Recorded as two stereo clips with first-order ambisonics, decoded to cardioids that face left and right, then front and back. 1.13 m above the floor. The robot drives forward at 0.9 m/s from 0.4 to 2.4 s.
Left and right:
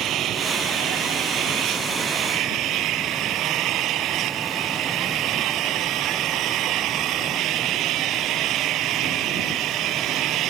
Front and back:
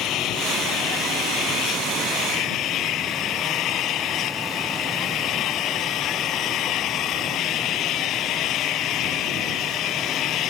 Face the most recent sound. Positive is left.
turn(degrees=-45)